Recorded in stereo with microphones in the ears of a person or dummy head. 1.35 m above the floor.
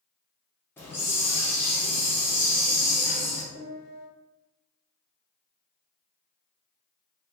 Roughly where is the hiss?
Centre.